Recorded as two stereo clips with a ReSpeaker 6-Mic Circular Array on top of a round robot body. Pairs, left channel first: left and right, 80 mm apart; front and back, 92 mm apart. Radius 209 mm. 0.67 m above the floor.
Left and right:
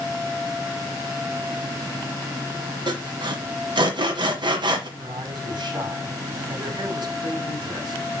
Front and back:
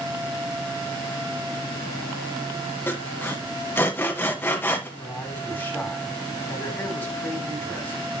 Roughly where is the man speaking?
Right.